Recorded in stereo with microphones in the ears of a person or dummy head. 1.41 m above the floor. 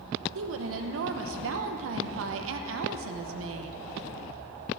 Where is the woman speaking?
70° right (ahead or behind), 0.9 m.